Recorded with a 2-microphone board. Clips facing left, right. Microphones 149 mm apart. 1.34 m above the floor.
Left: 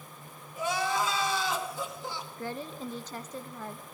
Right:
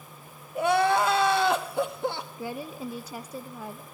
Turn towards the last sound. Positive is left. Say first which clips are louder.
# right 1 dB
turn(degrees=-10)  # may be behind; listen again after turning